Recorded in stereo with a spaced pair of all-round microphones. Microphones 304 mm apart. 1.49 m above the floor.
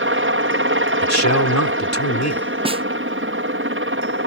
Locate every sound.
0.0 s a helicopter: 40° right (ahead or behind)
1.0 s a man speaking: 60° left (ahead or behind)
2.6 s a snare drum: 20° right (ahead or behind)